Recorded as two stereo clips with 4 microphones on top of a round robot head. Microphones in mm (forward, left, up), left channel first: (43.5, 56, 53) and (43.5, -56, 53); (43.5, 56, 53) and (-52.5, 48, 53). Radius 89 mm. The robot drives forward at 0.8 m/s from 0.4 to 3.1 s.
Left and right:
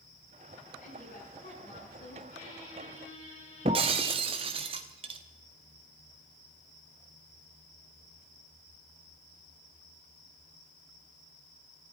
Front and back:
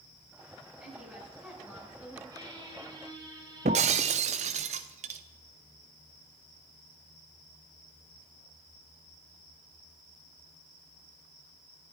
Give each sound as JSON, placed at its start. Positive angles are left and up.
{"t": 0.8, "sound": "a woman speaking", "azimuth_deg": 110, "distance_m": 9.5}
{"t": 2.3, "sound": "a squeak", "azimuth_deg": 135, "distance_m": 5.0}
{"t": 3.6, "sound": "breaking glass", "azimuth_deg": -145, "distance_m": 0.8}